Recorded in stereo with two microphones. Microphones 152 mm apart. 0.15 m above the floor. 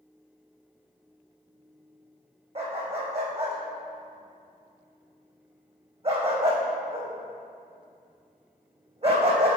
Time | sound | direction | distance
2.5 | a dog barking | 40° right (ahead or behind) | 1.8 m